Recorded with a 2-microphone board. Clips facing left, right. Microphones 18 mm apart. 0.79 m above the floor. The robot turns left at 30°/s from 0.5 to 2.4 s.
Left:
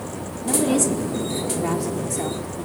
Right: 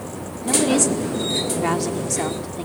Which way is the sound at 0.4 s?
25° right.